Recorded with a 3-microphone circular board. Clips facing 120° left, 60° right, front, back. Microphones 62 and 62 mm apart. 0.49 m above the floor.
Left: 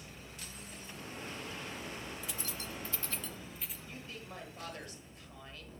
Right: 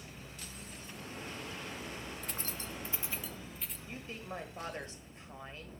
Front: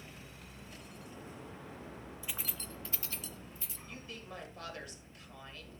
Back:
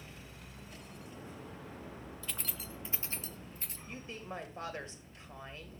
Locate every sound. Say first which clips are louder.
2.2 s keys jangling: even, even; 70° right, 0.5 m; by 3.8 s 155° right, 0.8 m
3.9 s a woman speaking: right 6 dB, back 4 dB; 120° right, 1.7 m